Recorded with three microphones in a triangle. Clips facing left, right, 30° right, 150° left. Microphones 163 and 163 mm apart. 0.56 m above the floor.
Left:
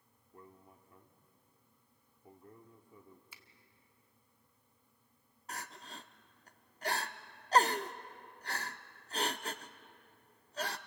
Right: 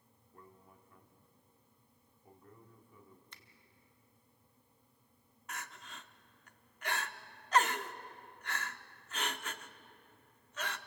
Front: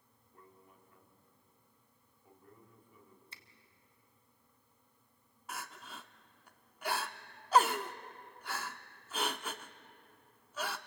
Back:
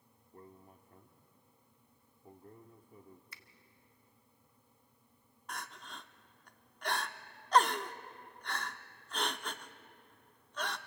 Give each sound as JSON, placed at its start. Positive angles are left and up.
{"t": 0.3, "sound": "a man speaking", "azimuth_deg": 140, "distance_m": 1.6}
{"t": 3.3, "sound": "a finger snap", "azimuth_deg": 15, "distance_m": 1.2}
{"t": 5.5, "sound": "crying", "azimuth_deg": 50, "distance_m": 0.7}